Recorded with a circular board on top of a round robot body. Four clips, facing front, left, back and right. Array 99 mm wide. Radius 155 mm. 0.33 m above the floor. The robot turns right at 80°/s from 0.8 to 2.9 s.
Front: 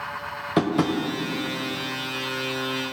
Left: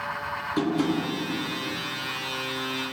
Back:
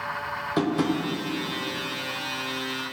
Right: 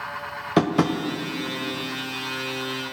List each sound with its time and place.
0.6 s tapping: 75° right, 1.0 m; by 1.0 s 60° right, 1.0 m